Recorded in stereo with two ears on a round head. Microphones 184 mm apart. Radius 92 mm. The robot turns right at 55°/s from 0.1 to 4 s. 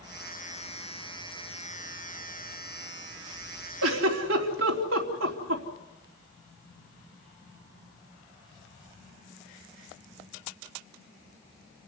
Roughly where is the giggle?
Right.